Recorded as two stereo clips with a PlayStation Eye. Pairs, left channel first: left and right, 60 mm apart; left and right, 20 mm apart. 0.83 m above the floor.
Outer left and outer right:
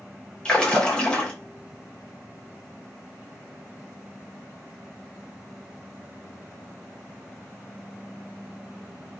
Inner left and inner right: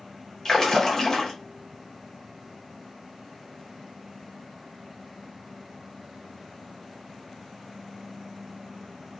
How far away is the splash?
About 0.7 m.